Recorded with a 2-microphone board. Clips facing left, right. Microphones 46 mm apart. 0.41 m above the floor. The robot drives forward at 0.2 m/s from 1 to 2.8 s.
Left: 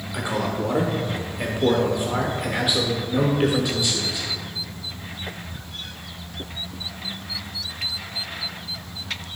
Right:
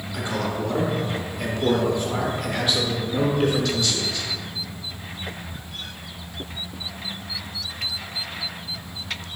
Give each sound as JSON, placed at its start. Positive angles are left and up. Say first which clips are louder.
{"t": 0.1, "sound": "a man speaking", "louder": "left 1 dB", "side_deg": 15, "distance_m": 0.7}